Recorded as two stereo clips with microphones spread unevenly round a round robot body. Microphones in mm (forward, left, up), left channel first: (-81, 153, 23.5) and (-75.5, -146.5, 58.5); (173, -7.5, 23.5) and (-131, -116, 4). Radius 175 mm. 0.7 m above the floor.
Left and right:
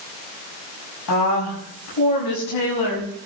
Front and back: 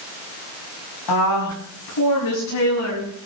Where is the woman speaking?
50° left, 5.5 m; by 3.1 s 65° left, 6 m.